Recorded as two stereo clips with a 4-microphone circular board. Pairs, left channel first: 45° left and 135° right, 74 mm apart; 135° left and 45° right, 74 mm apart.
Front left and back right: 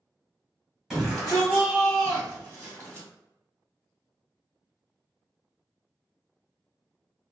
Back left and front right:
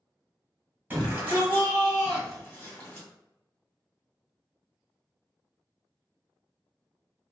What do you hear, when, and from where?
0.9 s a shout: 55° right, 1.7 m; by 3.1 s 85° left, 1.7 m